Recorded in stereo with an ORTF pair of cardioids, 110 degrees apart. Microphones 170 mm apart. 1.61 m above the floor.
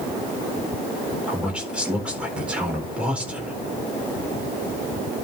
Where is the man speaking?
5° right, 4.5 m.